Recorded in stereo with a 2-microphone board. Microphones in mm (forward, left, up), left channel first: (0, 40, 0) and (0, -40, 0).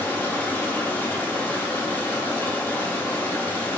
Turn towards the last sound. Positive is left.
turn(degrees=25)  # may be behind; listen again after turning